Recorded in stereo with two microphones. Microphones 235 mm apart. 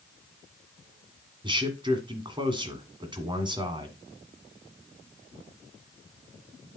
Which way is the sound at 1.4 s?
20° right (ahead or behind).